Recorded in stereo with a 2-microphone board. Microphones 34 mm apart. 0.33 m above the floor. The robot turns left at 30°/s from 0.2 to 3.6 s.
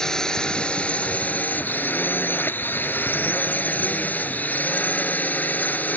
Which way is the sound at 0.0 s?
165° left.